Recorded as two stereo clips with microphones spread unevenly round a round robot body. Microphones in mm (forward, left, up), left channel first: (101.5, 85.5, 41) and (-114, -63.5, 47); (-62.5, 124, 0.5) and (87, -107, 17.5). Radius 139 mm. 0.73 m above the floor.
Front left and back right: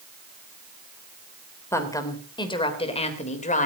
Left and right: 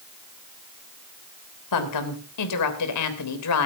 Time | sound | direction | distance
1.7 | a woman speaking | 115° left | 3 m